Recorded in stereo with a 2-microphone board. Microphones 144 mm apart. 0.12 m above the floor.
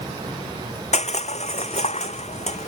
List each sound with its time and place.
0.9 s crushing: 50° left (ahead or behind)